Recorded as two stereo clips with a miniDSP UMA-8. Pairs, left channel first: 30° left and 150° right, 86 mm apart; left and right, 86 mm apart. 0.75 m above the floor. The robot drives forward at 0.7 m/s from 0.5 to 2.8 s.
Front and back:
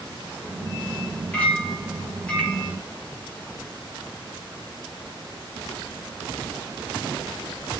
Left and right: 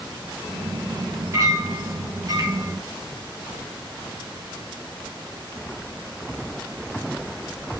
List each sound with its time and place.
1.3 s a clink: 45° right, 8.5 m